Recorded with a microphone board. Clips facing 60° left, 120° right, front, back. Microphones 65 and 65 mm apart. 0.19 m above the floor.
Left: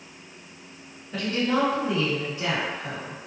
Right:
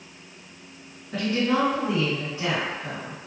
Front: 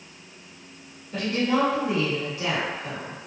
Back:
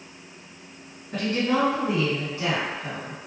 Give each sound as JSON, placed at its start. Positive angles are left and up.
{"t": 1.1, "sound": "a woman speaking", "azimuth_deg": -155, "distance_m": 1.5}